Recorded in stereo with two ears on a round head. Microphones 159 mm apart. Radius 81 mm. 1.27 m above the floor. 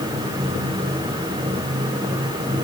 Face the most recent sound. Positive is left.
No sound to turn to.